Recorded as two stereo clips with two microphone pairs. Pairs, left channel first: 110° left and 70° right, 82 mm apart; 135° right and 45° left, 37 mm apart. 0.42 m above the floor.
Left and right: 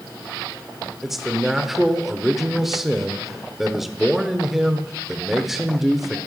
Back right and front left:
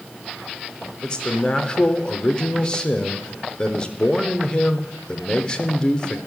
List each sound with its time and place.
1.0 s a man speaking: 155° right, 0.9 m